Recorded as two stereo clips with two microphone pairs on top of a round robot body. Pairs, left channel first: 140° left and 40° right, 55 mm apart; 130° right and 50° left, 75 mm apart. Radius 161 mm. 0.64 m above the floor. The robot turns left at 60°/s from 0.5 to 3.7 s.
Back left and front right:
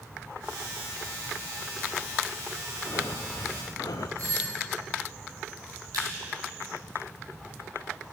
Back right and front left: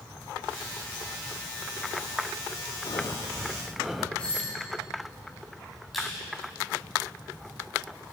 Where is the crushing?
40° right, 4.5 m.